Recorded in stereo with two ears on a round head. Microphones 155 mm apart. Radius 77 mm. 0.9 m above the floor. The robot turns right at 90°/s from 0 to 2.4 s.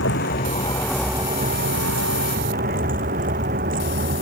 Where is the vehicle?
85° left; by 4.2 s 50° right (ahead or behind).